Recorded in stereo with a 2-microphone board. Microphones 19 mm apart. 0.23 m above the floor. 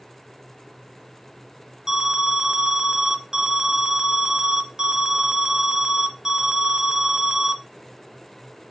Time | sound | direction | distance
1.9 | an alarm | 30° right (ahead or behind) | 0.7 m